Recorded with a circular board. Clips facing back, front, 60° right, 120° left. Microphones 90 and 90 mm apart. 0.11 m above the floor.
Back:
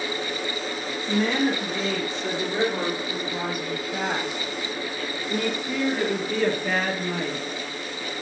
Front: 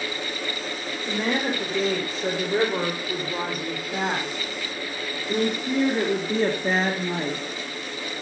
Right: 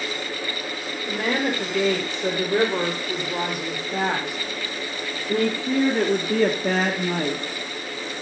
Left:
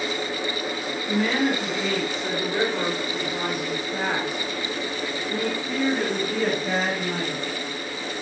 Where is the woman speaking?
45° right, 7.5 m; by 7.5 s 65° right, 3 m.